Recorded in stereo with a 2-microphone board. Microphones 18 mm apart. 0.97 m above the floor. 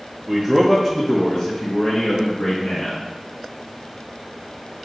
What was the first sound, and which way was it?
A man speaking, 30° right (ahead or behind).